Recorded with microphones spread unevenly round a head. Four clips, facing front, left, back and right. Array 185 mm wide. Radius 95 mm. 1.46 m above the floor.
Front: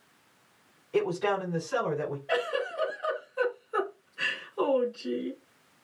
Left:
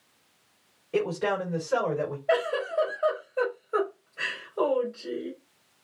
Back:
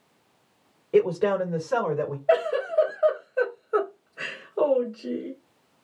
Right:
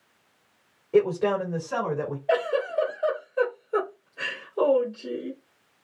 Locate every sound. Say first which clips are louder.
0.9 s a man speaking: right 5 dB, back 6 dB; 170° right, 2.5 m; by 2.2 s 155° right, 3 m
2.3 s a giggle: right 2 dB, back 9 dB; 175° right, 2.5 m